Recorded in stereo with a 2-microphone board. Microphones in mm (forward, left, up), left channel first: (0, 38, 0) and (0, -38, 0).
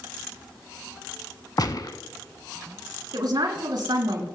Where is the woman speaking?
65° right (ahead or behind), 3.5 m.